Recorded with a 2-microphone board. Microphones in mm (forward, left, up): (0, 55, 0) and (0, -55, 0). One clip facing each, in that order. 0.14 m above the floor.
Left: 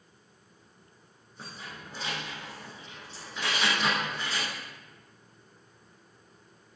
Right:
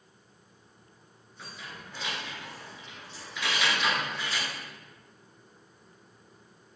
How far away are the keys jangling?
About 1.3 m.